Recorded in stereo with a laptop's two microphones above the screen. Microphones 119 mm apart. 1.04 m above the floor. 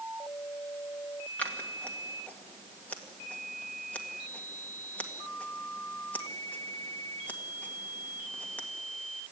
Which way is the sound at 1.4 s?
15° left (ahead or behind).